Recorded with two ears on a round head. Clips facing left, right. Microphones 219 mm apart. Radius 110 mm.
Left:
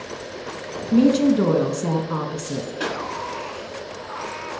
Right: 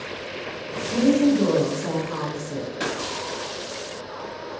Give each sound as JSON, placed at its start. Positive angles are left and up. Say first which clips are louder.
{"t": 0.9, "sound": "a woman speaking", "louder": "left 2 dB", "side_deg": 60, "distance_m": 1.0}
{"t": 2.8, "sound": "a pop", "louder": "left 1 dB", "side_deg": -5, "distance_m": 1.1}